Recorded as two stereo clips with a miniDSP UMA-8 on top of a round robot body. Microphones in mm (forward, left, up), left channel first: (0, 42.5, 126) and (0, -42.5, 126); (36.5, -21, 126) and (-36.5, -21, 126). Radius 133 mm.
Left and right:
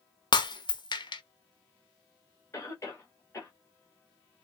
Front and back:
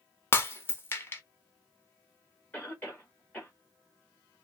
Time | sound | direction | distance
0.3 | breaking glass | 60° left | 0.9 m
2.5 | a cough | 50° left | 1.4 m